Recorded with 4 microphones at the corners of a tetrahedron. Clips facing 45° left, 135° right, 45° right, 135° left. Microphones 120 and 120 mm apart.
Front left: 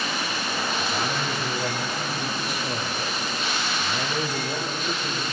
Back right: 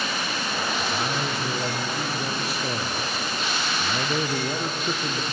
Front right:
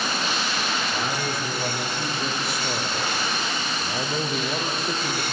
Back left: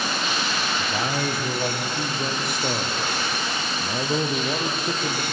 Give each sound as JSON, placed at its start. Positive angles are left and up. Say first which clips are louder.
{"t": 0.8, "sound": "a man speaking", "louder": "even, back left 2 dB", "azimuth_deg": 160, "distance_m": 4.5}